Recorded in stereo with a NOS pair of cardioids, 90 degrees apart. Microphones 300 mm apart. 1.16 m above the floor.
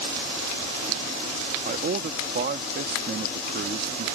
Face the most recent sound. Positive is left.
turn(degrees=-35)